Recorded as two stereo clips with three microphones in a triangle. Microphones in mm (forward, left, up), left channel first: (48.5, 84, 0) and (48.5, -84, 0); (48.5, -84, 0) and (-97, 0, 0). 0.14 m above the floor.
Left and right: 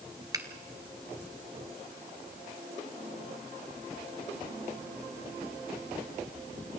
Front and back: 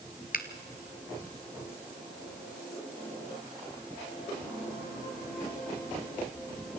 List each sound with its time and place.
0.3 s a finger snap: 25° right, 1.6 m